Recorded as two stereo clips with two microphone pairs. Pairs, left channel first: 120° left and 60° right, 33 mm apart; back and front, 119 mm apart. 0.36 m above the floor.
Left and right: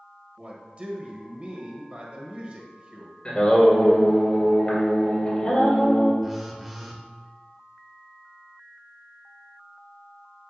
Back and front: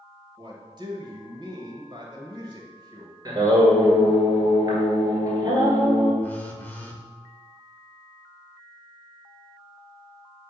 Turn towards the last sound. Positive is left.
turn(degrees=-140)